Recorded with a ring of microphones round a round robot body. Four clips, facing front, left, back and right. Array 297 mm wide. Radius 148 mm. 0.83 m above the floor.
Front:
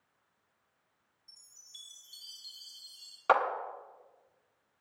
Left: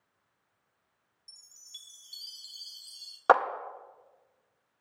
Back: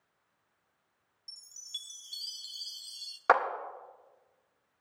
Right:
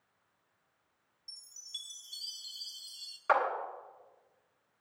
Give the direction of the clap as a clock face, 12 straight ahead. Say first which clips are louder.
Left 6 dB, back 1 dB; 9 o'clock.